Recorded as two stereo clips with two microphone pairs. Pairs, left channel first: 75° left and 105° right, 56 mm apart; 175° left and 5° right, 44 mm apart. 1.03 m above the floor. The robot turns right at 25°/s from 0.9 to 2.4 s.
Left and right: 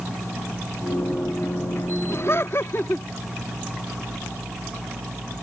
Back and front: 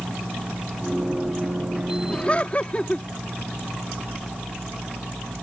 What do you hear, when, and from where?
2.1 s laughter: 105° left; by 3.1 s 115° left